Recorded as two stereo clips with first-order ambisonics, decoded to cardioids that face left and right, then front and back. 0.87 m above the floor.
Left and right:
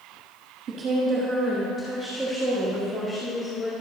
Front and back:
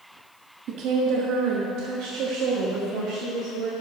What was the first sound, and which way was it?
A woman speaking, 145° right.